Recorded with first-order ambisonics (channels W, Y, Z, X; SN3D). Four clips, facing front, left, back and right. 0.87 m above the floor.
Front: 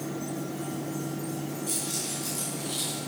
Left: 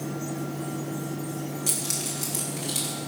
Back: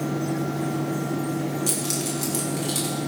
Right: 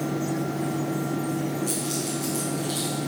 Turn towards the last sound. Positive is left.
turn(degrees=145)